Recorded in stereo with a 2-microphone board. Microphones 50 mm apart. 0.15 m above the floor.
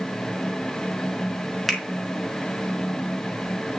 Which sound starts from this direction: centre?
A finger snap, at 1.7 s.